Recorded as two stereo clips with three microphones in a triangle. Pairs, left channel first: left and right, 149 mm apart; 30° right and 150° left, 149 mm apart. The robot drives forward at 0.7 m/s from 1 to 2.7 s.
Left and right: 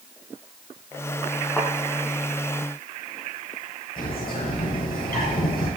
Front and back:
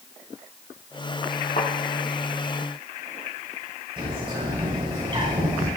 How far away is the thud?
About 3.5 m.